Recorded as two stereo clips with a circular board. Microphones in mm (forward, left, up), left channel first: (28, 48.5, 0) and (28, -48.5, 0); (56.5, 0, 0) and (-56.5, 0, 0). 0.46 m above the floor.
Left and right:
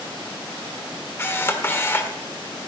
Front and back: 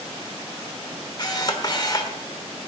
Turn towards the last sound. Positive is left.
turn(degrees=35)